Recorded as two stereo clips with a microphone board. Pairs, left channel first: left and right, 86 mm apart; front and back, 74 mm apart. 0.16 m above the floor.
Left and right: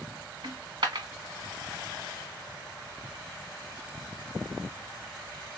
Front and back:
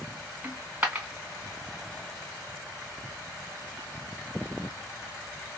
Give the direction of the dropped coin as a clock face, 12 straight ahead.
4 o'clock.